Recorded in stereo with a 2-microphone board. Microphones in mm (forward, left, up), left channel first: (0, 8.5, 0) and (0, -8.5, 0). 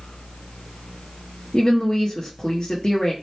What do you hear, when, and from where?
1.5 s a woman speaking: 40° left (ahead or behind), 0.7 m